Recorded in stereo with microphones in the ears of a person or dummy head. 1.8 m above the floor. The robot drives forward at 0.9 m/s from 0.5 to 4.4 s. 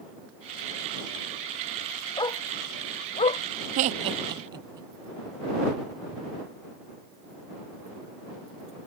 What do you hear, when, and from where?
2.2 s a dog barking: 20° left (ahead or behind); by 3.4 s 30° left (ahead or behind)
3.8 s laughter: 40° right (ahead or behind); by 4.9 s 25° right (ahead or behind)